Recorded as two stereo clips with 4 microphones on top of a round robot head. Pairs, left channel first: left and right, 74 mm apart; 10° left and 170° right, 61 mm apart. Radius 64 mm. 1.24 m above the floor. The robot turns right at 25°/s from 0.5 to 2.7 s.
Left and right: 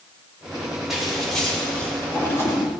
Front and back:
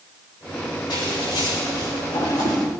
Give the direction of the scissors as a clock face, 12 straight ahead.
12 o'clock.